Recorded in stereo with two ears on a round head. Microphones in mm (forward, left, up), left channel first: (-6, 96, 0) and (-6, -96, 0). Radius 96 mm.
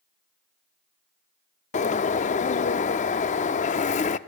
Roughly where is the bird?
Left.